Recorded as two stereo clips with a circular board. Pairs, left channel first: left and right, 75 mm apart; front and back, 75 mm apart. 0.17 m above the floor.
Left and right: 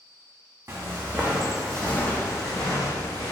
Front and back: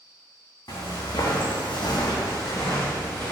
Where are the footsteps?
35° right, 0.8 m; by 3.3 s 65° left, 1.0 m.